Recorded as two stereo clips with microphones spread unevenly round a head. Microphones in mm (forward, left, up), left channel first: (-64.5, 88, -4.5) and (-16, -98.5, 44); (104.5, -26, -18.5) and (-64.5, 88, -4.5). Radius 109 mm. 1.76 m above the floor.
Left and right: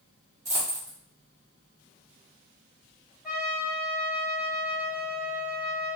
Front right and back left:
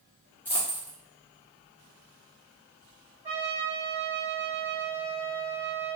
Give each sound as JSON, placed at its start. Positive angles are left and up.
{"t": 0.5, "sound": "a dropped coin", "azimuth_deg": -115, "distance_m": 1.5}
{"t": 3.2, "sound": "a trumpet", "azimuth_deg": -145, "distance_m": 2.0}